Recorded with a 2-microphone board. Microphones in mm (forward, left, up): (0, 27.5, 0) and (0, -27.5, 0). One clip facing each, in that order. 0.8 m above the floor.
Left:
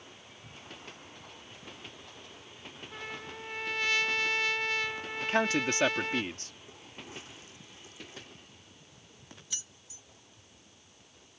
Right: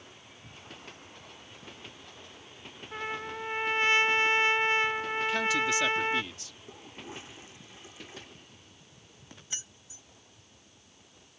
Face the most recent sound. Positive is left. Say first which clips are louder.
# right 4 dB
turn(degrees=-30)  # may be behind; listen again after turning